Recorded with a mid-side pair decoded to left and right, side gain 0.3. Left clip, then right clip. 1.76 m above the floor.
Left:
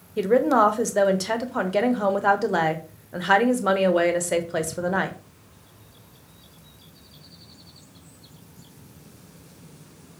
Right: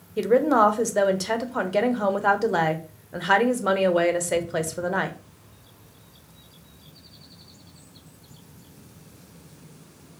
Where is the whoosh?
No whoosh in this recording.